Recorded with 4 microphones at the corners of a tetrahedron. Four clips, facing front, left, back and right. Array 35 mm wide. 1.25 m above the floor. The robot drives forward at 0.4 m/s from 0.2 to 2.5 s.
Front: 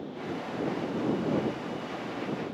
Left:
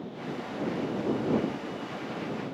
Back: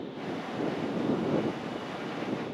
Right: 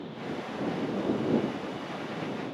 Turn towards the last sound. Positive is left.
No sound to turn to.